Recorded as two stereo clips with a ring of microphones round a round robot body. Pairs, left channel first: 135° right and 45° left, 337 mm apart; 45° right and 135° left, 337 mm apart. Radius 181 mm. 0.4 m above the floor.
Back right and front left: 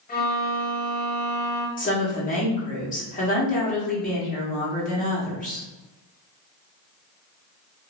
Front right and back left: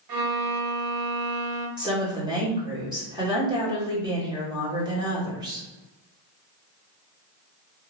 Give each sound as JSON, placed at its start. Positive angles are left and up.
{"t": 0.1, "sound": "a violin", "azimuth_deg": 160, "distance_m": 0.7}
{"t": 1.8, "sound": "a woman speaking", "azimuth_deg": -165, "distance_m": 1.2}